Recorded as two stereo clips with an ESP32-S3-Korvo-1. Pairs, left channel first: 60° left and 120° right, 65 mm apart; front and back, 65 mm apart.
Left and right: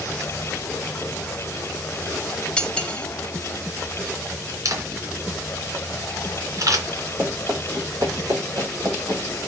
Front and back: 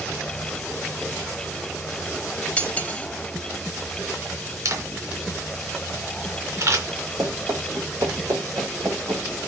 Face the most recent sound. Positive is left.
turn(degrees=-145)